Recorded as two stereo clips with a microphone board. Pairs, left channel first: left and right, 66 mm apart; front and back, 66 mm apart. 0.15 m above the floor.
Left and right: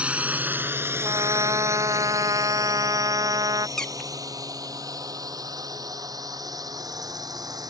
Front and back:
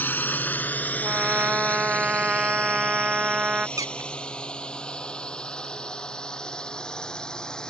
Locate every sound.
0.0 s a drone: 30° right; by 7.7 s 75° right
1.0 s a trumpet: 105° right
3.8 s a squeak: 170° left